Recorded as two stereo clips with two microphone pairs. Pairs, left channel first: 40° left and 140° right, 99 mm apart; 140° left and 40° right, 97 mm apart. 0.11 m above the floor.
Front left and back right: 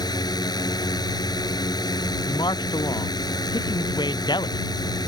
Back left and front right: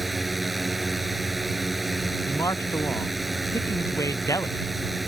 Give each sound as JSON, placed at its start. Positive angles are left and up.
{"t": 0.0, "sound": "a drone", "azimuth_deg": 45}
{"t": 2.3, "sound": "a man speaking", "azimuth_deg": 80}